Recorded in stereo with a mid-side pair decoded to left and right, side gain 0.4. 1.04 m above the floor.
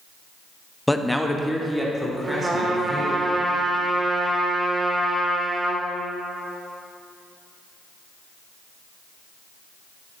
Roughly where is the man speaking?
Ahead.